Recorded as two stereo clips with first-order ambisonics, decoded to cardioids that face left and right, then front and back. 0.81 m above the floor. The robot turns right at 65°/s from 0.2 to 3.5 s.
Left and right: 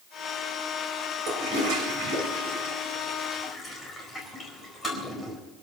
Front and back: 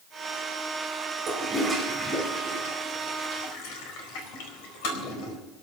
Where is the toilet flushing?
130° right, 4 m; by 5.4 s 15° left, 4 m.